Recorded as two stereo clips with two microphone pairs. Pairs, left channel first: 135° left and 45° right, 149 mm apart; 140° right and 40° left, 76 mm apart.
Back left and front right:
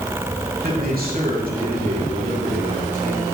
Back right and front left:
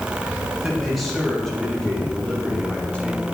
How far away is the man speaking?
About 3 m.